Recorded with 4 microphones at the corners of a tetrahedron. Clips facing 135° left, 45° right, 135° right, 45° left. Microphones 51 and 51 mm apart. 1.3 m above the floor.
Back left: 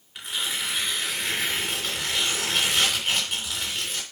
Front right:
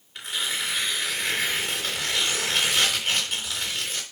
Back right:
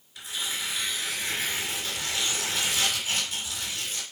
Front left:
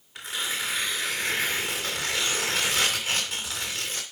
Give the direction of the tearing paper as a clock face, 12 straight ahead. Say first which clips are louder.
Front right 1 dB, front left 3 dB; 11 o'clock.